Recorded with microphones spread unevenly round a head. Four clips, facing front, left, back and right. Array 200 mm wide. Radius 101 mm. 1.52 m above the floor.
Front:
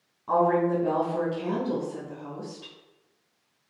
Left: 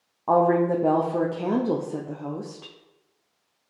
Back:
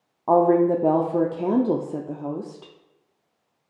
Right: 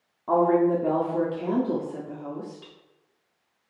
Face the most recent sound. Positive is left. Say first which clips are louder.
# left 1 dB, back 5 dB
turn(degrees=160)